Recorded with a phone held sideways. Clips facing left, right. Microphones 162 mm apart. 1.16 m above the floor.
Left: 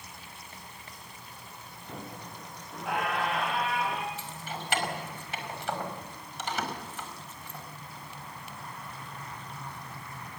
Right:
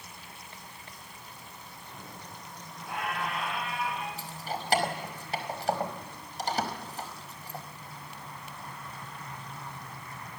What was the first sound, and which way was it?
A squeak, 70° left (ahead or behind).